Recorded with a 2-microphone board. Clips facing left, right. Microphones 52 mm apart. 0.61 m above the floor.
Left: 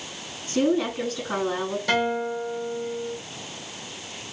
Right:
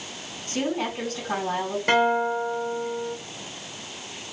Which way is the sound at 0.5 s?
55° right (ahead or behind).